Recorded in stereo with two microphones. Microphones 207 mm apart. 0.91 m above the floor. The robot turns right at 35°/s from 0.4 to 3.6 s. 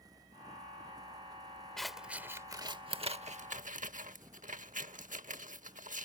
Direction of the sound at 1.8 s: 5° left (ahead or behind).